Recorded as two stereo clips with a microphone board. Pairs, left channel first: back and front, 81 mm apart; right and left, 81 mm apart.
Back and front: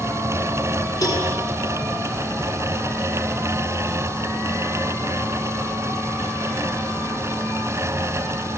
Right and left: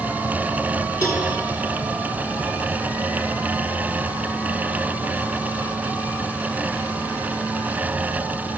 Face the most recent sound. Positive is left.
turn(degrees=-135)